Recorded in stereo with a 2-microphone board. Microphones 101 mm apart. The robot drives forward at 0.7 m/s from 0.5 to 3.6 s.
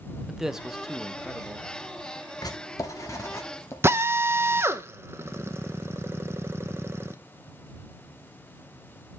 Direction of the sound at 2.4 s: 40° left (ahead or behind).